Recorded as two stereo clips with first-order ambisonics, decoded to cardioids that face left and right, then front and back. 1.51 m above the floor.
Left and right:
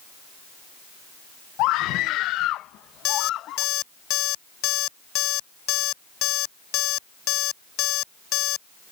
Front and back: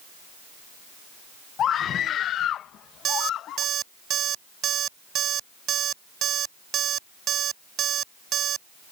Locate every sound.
1.6 s a scream: 60° left; by 3.6 s 45° left
3.0 s an alarm clock: 125° left